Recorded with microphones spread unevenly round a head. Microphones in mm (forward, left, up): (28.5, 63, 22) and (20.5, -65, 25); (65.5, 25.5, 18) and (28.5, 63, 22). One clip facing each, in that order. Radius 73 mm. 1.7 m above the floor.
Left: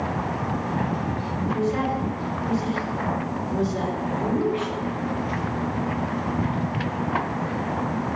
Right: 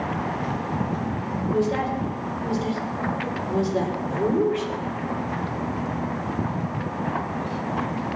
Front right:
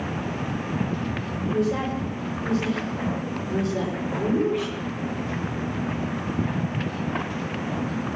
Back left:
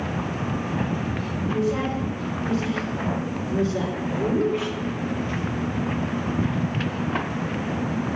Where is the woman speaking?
115° right, 6.5 m; by 4.7 s 145° right, 5.5 m.